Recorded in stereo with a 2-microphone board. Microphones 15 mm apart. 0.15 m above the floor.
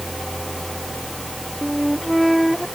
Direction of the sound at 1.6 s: 5° left (ahead or behind).